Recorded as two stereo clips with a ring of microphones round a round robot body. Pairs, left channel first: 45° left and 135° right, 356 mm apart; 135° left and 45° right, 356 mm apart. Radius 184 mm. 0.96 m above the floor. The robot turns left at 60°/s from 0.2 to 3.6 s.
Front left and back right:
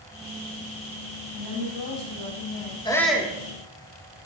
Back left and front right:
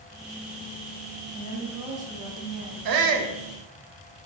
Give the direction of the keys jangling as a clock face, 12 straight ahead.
No keys jangling in this recording.